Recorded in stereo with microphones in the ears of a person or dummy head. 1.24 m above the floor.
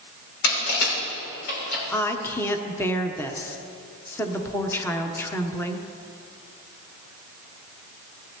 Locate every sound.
0.4 s crushing: 80° left, 5.5 m
1.9 s a woman speaking: 10° left (ahead or behind), 0.9 m